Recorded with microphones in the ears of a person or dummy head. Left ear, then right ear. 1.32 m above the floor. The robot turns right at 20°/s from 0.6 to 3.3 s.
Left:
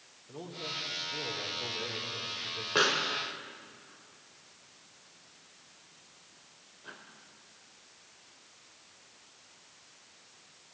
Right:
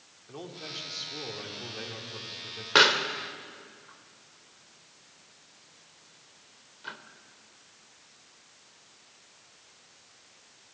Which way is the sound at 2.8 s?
55° right (ahead or behind).